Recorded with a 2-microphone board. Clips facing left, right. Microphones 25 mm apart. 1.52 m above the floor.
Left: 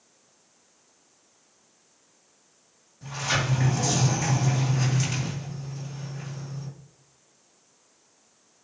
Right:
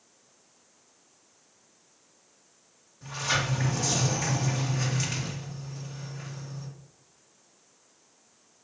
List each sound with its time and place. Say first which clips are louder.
3.0 s a sliding door: left 1 dB; 5° right (ahead or behind), 2.5 m